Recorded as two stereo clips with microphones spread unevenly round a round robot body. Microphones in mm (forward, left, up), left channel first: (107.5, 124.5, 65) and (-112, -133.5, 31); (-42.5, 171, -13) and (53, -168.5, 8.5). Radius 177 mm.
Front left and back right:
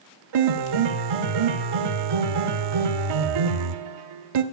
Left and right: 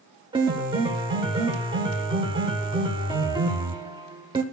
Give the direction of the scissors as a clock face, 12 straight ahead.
No scissors in this recording.